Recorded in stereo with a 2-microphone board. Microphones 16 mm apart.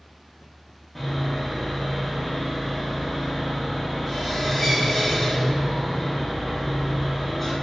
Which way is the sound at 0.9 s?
5° right (ahead or behind).